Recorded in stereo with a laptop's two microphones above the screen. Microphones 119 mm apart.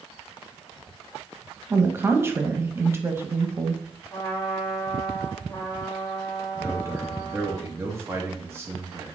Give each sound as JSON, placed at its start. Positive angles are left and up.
{"t": 1.7, "sound": "a woman speaking", "side_deg": -20, "distance_m": 0.6}
{"t": 4.1, "sound": "a trumpet", "side_deg": 30, "distance_m": 1.0}
{"t": 6.5, "sound": "a man speaking", "side_deg": -20, "distance_m": 0.9}